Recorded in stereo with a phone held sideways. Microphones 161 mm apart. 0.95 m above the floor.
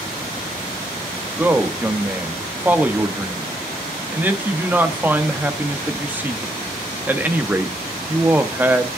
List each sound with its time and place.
1.4 s a man speaking: 10° right (ahead or behind), 1.1 m